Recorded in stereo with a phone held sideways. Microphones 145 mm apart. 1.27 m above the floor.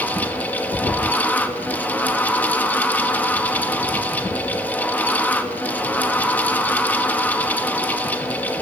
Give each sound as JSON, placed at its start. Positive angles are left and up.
{"t": 0.0, "sound": "a fan", "side_deg": 10, "distance_m": 1.1}